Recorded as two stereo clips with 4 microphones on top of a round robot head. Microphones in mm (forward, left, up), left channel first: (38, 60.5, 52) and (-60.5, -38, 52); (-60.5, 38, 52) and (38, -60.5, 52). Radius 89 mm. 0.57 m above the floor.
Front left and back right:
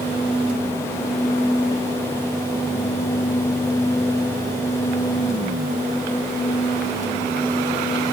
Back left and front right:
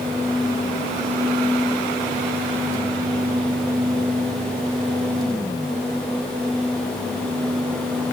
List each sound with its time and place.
Only background noise.